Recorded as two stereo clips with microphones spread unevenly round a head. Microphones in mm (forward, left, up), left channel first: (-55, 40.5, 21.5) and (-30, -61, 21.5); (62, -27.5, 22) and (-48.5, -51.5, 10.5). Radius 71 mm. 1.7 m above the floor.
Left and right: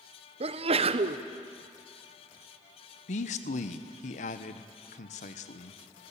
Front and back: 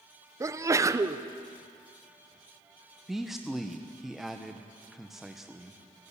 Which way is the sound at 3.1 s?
105° left.